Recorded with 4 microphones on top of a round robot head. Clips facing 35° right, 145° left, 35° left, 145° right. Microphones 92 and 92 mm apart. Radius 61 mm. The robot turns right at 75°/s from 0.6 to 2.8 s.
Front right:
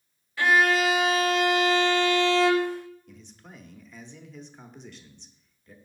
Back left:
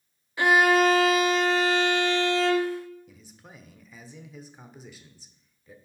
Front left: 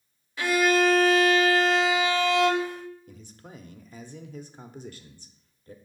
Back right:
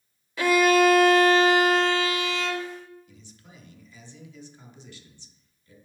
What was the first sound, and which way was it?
A violin, 145° right.